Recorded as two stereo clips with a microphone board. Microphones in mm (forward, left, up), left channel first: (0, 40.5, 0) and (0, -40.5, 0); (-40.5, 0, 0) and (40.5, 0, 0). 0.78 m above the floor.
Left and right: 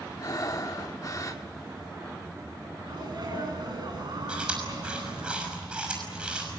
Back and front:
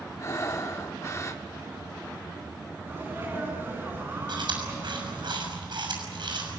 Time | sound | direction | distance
0.2 | breathing | 130° left | 1.4 m
2.9 | a sneeze | 65° right | 8.5 m
4.3 | chewing | 15° right | 6 m